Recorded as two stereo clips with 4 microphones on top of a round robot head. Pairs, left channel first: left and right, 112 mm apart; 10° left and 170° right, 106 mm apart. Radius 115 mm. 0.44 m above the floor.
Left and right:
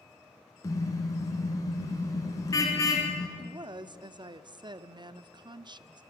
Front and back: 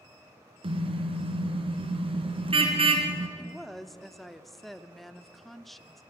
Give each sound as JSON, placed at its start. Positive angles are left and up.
{"t": 0.6, "sound": "a car horn", "azimuth_deg": 155, "distance_m": 3.0}
{"t": 3.4, "sound": "a woman speaking", "azimuth_deg": -80, "distance_m": 0.9}